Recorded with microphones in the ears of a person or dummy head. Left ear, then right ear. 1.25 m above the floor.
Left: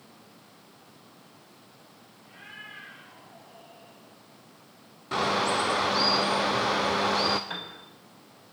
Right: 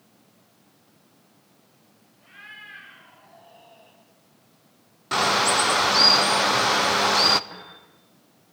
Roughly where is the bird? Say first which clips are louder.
Right 5 dB; right.